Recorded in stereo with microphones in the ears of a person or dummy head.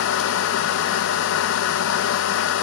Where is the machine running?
75° left (ahead or behind), 1.4 m.